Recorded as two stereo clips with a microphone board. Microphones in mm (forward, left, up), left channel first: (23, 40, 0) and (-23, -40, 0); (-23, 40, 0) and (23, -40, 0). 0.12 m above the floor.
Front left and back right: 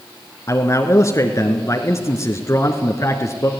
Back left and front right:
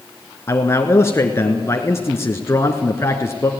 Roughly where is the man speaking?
Left.